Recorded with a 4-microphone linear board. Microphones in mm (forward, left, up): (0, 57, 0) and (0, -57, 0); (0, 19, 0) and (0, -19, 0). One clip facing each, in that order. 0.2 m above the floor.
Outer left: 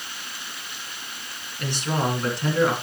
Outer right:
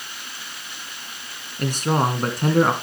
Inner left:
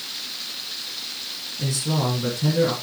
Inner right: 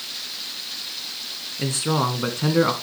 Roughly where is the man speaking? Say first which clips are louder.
Outer right 5 dB, inner right 2 dB; right.